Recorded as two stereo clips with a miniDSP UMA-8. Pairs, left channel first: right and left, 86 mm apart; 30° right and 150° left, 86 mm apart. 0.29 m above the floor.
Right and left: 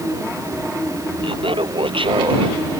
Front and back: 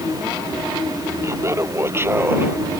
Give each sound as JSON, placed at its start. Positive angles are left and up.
{"t": 1.2, "sound": "laughter", "azimuth_deg": 95}